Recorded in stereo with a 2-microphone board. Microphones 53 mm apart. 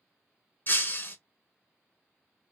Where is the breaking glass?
45° left (ahead or behind), 0.8 m.